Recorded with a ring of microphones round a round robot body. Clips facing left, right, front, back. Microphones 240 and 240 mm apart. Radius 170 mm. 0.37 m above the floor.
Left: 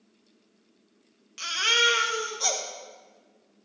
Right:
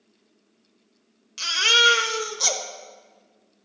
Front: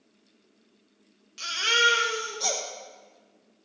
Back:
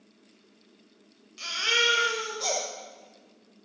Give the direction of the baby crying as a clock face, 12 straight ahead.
3 o'clock.